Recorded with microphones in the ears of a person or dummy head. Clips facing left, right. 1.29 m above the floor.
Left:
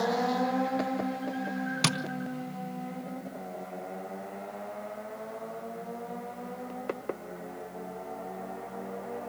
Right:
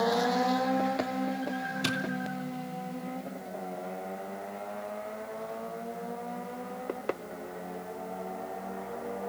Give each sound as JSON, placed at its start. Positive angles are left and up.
{"t": 1.8, "sound": "tapping", "side_deg": 65, "distance_m": 0.8}